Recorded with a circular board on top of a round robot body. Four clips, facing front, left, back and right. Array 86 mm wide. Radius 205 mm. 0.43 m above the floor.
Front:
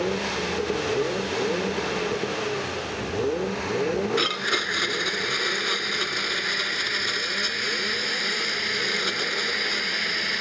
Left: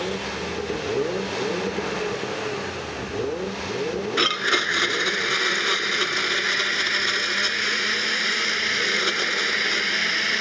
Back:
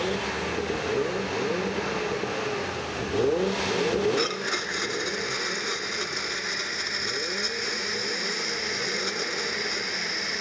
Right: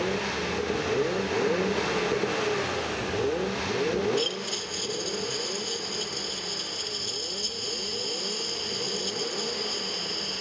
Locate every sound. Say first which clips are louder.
4.2 s a blender: left 7 dB, front 1 dB; 80° left